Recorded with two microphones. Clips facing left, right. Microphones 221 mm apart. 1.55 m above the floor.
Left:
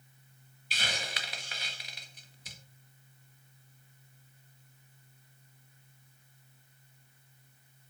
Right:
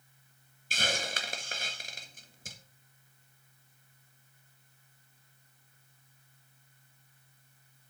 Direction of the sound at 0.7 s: 45° right (ahead or behind).